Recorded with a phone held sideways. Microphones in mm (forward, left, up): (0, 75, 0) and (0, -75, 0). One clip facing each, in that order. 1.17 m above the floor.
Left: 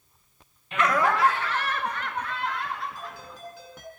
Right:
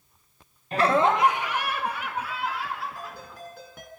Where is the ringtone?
55° right (ahead or behind), 7 m.